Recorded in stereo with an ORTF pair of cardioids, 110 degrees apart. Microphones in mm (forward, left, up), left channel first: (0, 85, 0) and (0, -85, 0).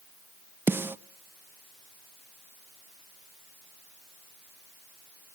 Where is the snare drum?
10° right, 0.7 m.